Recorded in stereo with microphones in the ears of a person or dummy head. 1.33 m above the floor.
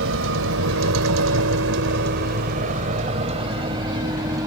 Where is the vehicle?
75° right (ahead or behind); by 4.5 s 15° right (ahead or behind).